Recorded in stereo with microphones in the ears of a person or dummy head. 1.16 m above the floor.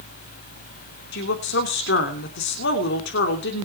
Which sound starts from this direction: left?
A woman speaking, at 1.1 s.